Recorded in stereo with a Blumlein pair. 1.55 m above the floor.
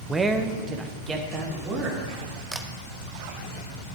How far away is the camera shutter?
About 0.9 m.